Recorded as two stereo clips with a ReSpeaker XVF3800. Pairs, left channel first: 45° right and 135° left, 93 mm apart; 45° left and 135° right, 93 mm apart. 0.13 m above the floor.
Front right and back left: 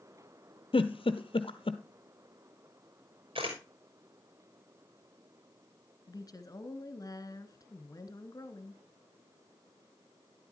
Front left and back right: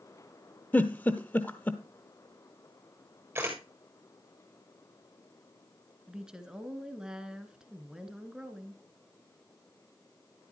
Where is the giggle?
25° right, 0.9 m.